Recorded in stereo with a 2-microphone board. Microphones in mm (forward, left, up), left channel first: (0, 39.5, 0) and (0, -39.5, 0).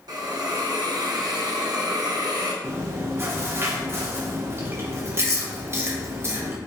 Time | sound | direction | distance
0.1 | a hiss | 55° right (ahead or behind) | 0.6 m
2.6 | chewing | 30° right (ahead or behind) | 0.5 m